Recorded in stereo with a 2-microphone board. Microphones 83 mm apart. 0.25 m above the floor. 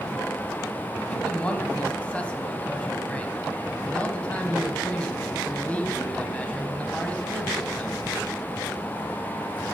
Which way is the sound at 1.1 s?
15° left (ahead or behind).